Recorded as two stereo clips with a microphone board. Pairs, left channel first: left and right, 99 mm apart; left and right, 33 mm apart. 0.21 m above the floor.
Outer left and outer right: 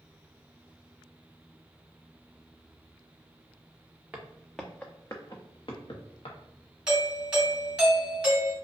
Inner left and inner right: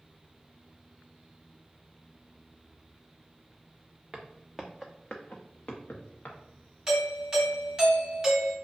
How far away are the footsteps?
About 0.7 m.